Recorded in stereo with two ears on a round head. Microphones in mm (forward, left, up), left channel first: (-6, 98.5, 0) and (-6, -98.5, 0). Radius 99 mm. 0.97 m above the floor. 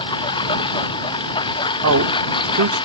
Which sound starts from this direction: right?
A man speaking, at 1.8 s.